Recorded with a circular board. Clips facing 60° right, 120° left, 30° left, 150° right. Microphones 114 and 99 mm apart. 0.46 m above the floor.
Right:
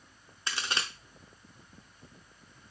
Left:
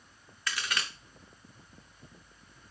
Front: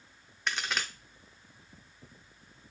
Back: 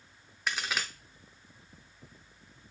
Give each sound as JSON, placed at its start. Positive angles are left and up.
{"t": 0.5, "sound": "a crack", "azimuth_deg": -65, "distance_m": 0.5}